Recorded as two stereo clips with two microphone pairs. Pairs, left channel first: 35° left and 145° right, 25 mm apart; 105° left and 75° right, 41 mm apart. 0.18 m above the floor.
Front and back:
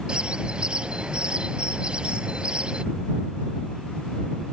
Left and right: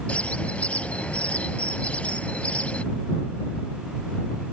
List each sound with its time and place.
0.1 s a bird: 165° left